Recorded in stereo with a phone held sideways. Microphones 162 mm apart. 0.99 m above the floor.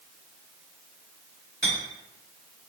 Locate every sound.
1.6 s a clink: 85° right, 1.5 m